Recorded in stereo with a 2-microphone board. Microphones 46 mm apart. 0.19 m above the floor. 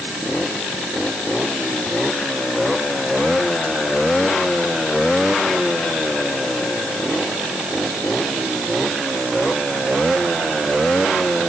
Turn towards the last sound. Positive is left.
No sound to turn to.